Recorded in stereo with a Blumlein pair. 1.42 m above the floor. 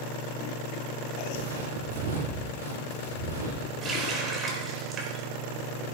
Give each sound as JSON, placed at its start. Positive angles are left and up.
{"t": 1.3, "sound": "footsteps", "azimuth_deg": -65, "distance_m": 6.0}
{"t": 3.8, "sound": "a running tap", "azimuth_deg": -25, "distance_m": 4.0}